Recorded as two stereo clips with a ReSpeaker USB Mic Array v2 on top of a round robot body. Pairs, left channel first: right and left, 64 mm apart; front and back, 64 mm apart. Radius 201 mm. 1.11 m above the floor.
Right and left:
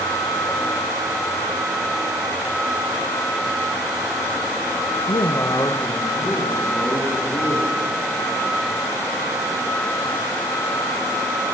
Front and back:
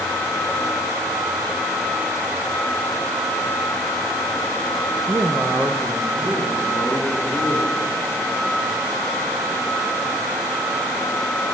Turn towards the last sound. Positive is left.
turn(degrees=-130)